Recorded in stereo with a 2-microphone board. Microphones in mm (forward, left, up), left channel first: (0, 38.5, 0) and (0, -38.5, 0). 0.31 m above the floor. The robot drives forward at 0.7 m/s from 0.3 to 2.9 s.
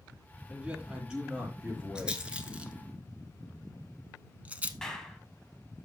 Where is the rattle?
10° right (ahead or behind), 1.6 m; by 4.7 s 20° right (ahead or behind), 1.0 m.